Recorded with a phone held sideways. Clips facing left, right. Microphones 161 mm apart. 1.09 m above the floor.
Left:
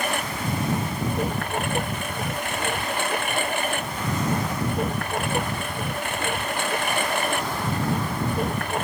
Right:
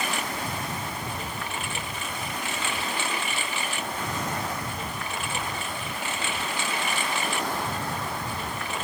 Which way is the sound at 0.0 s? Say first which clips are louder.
Left 3 dB; 60° left (ahead or behind).